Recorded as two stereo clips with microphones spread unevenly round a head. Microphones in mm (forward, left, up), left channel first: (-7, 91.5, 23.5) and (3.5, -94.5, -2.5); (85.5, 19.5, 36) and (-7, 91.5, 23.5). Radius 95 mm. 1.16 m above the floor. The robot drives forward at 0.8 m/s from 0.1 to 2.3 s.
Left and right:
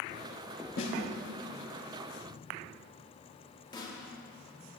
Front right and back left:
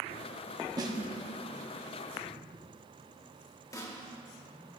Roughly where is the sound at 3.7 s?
Ahead left.